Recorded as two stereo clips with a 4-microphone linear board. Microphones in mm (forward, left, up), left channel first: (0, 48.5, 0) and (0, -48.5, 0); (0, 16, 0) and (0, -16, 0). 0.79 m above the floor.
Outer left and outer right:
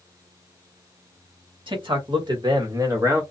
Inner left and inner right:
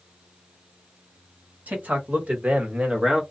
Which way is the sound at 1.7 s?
55° right (ahead or behind).